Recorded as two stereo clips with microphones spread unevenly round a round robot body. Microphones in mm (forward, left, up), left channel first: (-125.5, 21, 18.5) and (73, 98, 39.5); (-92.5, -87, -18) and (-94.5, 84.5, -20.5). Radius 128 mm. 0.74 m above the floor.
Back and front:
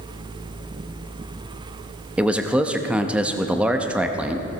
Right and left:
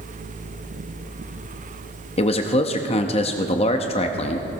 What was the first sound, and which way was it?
A man speaking, 70° right.